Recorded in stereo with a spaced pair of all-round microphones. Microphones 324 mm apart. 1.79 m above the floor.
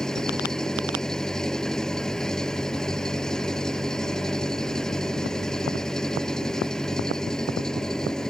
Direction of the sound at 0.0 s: Centre (ahead or behind).